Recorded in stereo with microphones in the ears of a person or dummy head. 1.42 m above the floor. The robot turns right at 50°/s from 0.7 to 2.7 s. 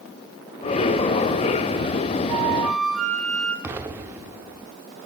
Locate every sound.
2.3 s a flute: 25° right (ahead or behind), 5 m; by 3.5 s 5° right (ahead or behind), 5 m
3.6 s an explosion: 15° right (ahead or behind), 1.1 m